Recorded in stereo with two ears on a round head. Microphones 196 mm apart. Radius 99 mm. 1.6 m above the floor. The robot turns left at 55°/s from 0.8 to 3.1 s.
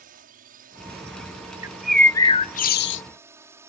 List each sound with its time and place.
0.0 s a drone: 40° right; by 3.7 s 170° right
1.6 s a bird: 165° right; by 3.0 s 115° left